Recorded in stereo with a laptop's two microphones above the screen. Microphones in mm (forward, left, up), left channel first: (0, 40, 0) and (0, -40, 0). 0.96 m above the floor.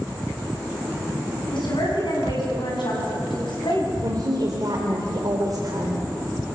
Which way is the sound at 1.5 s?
80° left.